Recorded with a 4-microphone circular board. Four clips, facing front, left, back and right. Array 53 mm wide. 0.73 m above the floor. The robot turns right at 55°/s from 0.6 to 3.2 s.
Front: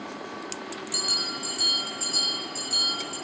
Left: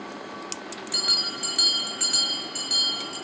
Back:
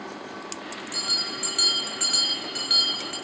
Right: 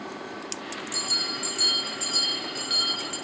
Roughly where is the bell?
Left.